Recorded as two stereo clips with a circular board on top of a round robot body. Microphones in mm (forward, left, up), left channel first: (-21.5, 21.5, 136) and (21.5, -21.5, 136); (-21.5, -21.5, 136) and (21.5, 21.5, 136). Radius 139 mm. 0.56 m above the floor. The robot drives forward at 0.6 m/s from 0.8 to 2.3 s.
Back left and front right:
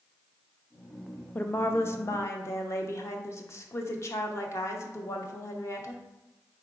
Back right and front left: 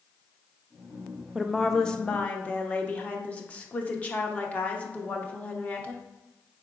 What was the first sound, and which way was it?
A woman speaking, 120° left.